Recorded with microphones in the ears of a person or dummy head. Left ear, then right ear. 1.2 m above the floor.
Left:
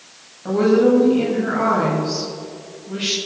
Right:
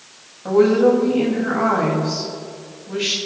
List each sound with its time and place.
0.5 s a woman speaking: 10° right (ahead or behind), 7 m